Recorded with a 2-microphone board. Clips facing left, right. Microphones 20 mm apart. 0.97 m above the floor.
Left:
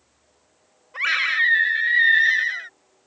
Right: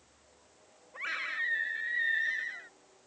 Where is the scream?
85° left.